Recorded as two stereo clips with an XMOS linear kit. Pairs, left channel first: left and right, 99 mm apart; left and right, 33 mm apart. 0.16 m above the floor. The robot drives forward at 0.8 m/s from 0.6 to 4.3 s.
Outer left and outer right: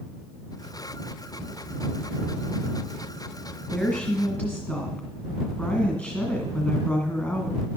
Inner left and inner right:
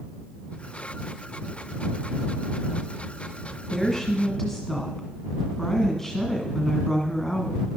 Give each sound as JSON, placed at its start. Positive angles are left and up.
{"t": 3.7, "sound": "a woman speaking", "side_deg": 15, "distance_m": 1.9}